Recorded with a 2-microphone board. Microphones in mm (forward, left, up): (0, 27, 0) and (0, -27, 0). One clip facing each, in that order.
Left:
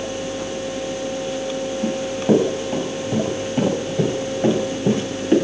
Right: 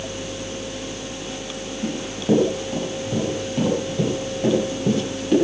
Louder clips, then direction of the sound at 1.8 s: Left 3 dB; 35° left (ahead or behind).